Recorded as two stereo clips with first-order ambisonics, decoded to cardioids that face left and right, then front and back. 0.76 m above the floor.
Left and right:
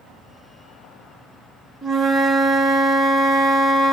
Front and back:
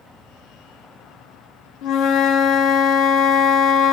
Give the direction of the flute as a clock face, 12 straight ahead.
12 o'clock.